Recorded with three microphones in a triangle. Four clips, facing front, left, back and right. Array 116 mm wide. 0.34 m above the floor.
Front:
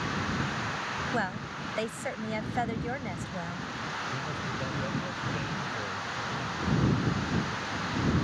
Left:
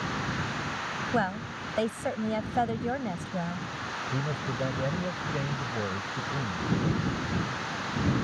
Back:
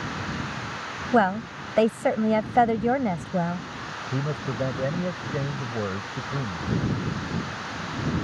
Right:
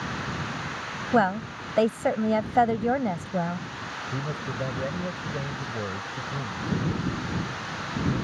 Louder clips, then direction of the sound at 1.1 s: Right 8 dB, back 16 dB; 145° right.